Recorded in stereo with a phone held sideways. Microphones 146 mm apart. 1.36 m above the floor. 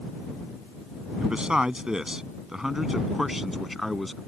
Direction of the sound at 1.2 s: 5° right (ahead or behind).